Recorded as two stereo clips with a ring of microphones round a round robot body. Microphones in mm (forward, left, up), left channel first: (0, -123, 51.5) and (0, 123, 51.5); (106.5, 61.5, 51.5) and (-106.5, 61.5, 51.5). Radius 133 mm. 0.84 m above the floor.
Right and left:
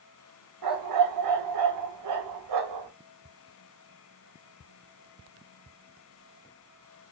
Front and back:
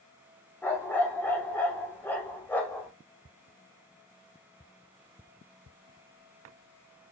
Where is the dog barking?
80° left, 0.9 m.